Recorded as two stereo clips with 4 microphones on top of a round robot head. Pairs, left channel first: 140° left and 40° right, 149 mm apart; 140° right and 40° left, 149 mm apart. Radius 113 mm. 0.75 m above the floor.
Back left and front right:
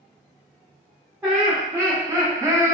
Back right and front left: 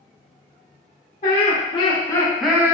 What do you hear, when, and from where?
1.2 s laughter: 115° right, 1.0 m; by 2.8 s 5° left, 0.6 m